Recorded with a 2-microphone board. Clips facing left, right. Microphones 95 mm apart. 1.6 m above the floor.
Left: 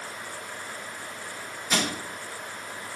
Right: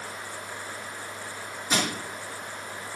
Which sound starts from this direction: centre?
Crushing, at 1.7 s.